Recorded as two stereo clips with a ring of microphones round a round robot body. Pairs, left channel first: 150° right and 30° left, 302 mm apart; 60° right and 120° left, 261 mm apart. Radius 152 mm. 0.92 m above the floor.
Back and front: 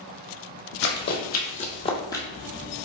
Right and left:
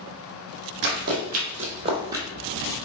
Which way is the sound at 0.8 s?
165° left.